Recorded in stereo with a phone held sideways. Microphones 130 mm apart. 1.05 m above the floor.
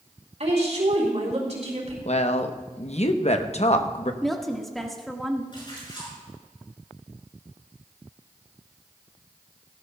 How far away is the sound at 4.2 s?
About 1.5 m.